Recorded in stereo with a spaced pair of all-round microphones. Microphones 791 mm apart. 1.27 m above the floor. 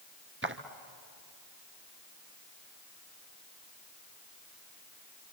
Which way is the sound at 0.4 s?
15° right (ahead or behind).